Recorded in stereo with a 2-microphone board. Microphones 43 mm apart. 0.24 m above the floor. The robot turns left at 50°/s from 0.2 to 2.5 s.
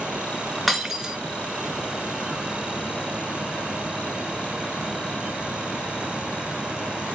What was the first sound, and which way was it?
Breaking glass, centre (ahead or behind).